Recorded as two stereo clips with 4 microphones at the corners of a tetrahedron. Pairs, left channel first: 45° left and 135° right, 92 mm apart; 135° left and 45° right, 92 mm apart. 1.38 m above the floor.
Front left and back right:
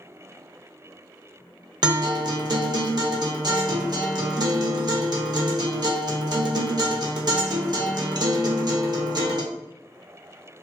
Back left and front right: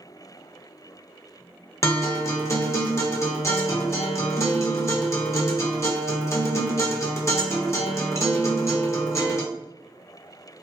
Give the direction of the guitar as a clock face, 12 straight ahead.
6 o'clock.